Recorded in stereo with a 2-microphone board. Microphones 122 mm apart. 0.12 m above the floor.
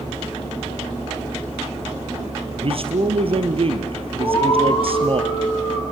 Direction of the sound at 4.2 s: 45° left (ahead or behind).